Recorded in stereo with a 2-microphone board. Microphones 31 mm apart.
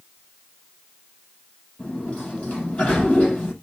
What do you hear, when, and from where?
1.8 s a sliding door: 45° left (ahead or behind), 6.5 m